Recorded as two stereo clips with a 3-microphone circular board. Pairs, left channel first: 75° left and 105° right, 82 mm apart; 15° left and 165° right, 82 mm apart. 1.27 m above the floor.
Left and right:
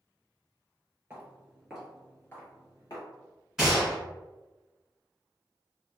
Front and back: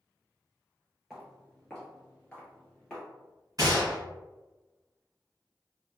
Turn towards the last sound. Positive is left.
turn(degrees=175)